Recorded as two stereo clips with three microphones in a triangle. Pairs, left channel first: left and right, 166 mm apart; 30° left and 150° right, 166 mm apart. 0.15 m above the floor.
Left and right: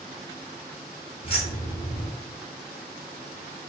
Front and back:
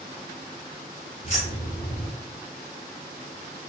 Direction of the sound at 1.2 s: 50° left.